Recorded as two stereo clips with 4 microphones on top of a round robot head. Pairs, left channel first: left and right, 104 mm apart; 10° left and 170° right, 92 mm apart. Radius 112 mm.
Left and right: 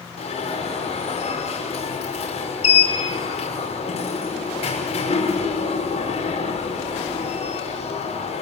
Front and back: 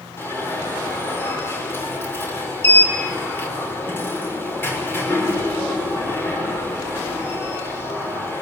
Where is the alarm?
75° left, 6 m.